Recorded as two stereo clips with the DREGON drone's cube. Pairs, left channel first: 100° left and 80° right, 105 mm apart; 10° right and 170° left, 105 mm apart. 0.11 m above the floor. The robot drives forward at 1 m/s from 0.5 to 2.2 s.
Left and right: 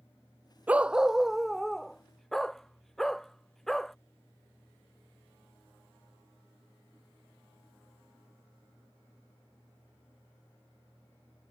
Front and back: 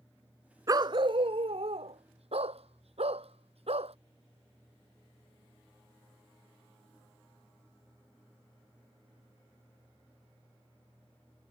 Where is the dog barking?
145° right; by 4.0 s 175° right.